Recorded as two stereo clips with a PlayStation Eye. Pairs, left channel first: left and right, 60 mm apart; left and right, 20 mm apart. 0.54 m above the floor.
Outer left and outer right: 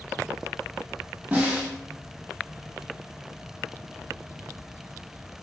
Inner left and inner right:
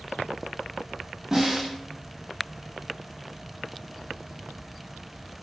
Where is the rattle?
I don't hear a rattle.